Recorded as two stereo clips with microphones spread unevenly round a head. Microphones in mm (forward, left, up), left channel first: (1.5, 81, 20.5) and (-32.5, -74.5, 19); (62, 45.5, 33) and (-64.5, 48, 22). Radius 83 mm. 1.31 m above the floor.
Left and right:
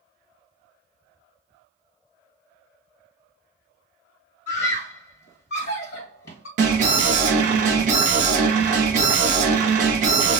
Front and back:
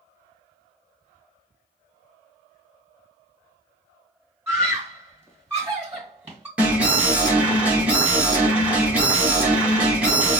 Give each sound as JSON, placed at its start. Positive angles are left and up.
{"t": 4.5, "sound": "a scream", "azimuth_deg": 105, "distance_m": 1.2}
{"t": 6.6, "sound": "an alarm", "azimuth_deg": -110, "distance_m": 1.3}